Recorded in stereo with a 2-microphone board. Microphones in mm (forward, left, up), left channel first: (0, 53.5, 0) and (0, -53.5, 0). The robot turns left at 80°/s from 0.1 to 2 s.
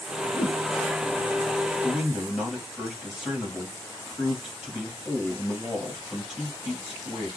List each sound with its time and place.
0.3 s a whoosh: 60° left (ahead or behind), 1.2 m; by 0.6 s 80° left, 1.2 m
1.8 s a man speaking: 5° left (ahead or behind), 1.7 m; by 7.3 s 5° right (ahead or behind), 1.7 m